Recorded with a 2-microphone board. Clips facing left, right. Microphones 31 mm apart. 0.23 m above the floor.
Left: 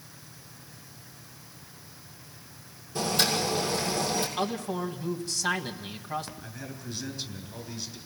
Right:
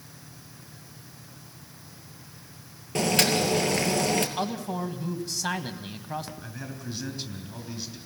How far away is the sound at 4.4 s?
About 1.4 m.